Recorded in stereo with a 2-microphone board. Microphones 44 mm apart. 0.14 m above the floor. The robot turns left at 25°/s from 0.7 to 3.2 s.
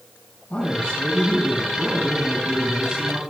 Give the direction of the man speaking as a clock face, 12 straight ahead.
11 o'clock.